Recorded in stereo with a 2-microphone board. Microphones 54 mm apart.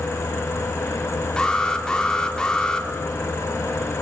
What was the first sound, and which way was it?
An alarm, 15° left (ahead or behind).